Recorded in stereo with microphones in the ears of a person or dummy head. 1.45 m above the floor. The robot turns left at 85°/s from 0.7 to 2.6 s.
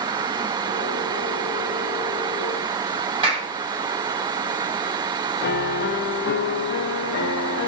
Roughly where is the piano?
Left.